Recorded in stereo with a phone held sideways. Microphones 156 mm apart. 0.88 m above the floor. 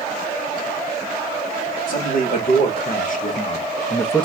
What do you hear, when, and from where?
1.9 s a man speaking: 65° left (ahead or behind), 1.3 m; by 4.3 s 5° left (ahead or behind), 0.5 m